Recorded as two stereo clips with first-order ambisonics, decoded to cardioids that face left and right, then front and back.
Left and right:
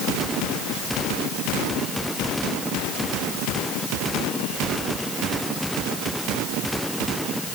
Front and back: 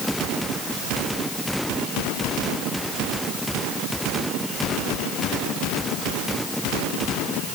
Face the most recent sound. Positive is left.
No sound to turn to.